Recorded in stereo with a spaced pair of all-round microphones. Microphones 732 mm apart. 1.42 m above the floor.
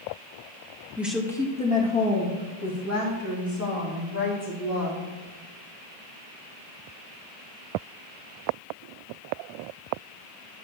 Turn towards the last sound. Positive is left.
turn(degrees=25)  # may be behind; listen again after turning